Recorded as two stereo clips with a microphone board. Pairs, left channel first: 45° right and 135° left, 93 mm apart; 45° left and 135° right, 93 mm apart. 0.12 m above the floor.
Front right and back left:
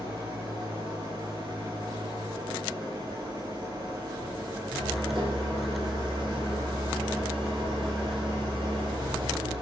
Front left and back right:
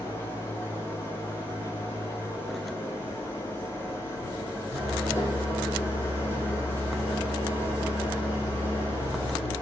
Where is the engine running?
110° left, 3 m.